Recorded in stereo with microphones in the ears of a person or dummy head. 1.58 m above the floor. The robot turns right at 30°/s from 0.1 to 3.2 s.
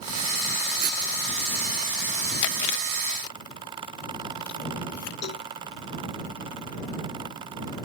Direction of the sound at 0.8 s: 50° right (ahead or behind).